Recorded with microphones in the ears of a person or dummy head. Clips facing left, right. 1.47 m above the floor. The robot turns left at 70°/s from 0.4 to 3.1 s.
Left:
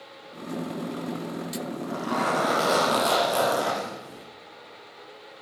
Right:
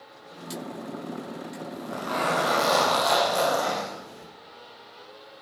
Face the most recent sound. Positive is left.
turn(degrees=140)